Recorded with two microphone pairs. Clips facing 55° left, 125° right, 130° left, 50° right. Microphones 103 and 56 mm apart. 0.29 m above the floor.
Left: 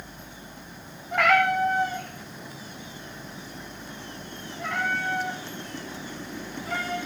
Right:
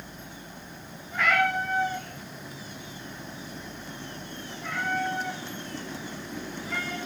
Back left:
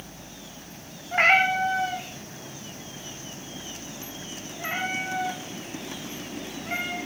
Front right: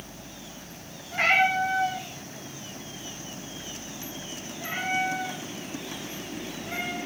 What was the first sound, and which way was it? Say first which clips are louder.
A cat meowing: left 4 dB, back left 2 dB; 85° left.